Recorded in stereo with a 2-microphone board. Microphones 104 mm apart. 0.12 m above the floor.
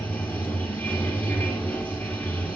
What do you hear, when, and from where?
0.0 s running water: 15° left (ahead or behind), 1.2 m